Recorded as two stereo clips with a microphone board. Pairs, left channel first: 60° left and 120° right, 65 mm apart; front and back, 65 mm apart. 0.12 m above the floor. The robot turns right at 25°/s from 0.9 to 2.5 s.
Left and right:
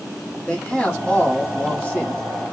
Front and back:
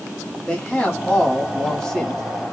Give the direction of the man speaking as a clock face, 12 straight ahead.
11 o'clock.